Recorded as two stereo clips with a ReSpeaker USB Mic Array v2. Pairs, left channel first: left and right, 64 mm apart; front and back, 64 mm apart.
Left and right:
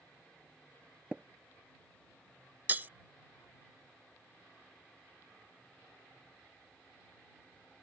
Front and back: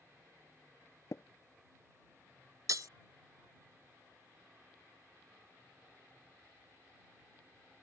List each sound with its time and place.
1.1 s tapping: 20° right
2.7 s breaking glass: 150° right